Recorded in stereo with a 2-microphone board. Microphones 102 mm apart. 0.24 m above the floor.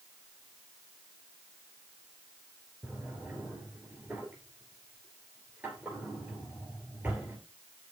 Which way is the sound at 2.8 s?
20° right (ahead or behind).